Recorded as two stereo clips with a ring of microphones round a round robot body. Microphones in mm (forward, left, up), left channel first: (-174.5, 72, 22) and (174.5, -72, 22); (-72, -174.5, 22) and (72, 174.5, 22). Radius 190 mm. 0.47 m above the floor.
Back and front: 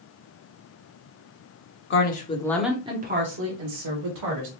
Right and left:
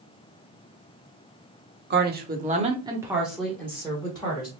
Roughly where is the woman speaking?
Behind left.